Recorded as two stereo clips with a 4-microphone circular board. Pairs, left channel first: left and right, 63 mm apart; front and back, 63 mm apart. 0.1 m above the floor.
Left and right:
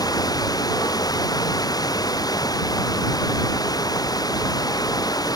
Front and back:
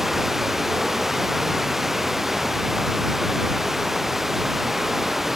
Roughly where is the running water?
Left.